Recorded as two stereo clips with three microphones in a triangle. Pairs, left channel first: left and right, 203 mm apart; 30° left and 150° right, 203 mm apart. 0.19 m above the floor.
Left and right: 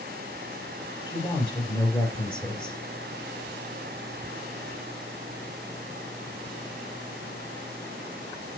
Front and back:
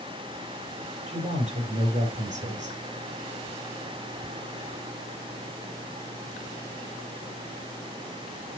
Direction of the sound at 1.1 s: 155° left.